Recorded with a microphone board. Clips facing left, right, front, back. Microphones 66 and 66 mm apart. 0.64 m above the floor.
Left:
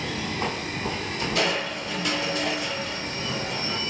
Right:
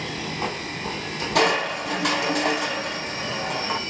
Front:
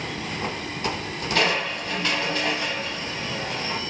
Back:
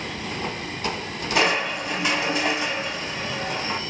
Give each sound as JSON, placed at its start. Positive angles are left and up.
{"t": 1.4, "sound": "crushing", "azimuth_deg": -105, "distance_m": 1.1}